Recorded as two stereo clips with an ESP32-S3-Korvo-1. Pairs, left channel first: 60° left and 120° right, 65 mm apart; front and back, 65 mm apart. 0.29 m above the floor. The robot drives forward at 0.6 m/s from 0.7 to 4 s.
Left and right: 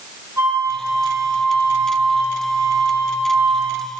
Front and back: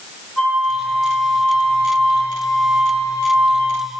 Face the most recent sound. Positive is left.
turn(degrees=-125)